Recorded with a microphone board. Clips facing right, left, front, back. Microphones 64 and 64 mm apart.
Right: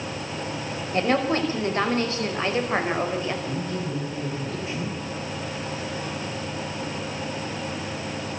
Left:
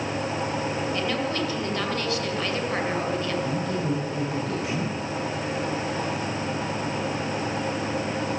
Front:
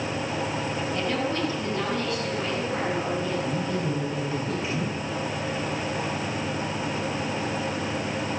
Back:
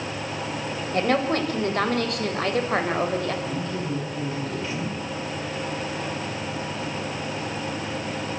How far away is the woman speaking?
About 4.5 m.